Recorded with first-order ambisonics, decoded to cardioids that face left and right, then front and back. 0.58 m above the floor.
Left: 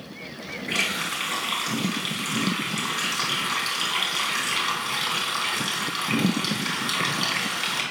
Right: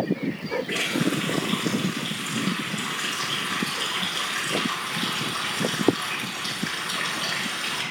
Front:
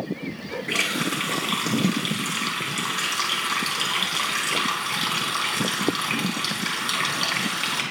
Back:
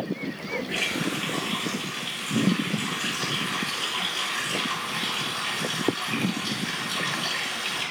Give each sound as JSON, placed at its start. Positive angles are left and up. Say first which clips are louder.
{"t": 0.7, "sound": "a running tap", "louder": "left 2 dB, front 5 dB", "azimuth_deg": 30, "distance_m": 4.0}